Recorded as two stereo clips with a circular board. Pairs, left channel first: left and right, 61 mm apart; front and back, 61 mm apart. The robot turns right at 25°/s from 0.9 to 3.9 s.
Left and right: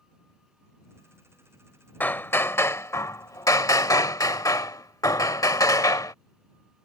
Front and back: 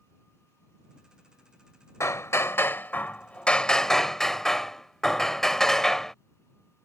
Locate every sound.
2.0 s hammering: 35° left; by 6.2 s 80° left